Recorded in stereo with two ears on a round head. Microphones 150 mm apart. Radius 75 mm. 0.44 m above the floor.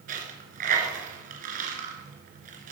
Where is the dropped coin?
50° right (ahead or behind), 2.5 m.